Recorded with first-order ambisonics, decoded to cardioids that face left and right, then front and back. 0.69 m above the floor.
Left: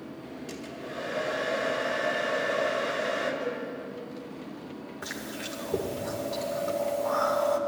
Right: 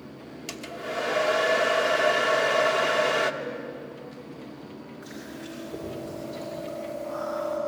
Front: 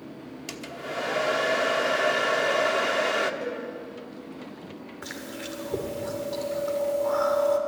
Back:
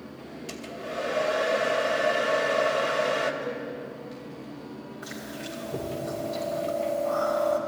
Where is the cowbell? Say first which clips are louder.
Left 2 dB, front 1 dB; straight ahead, 4.5 m.